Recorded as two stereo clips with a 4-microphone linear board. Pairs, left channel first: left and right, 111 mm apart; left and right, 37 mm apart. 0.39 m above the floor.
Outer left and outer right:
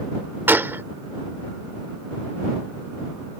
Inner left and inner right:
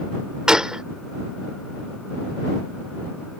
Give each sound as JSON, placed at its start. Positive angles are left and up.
{"t": 0.5, "sound": "a gunshot", "side_deg": -20}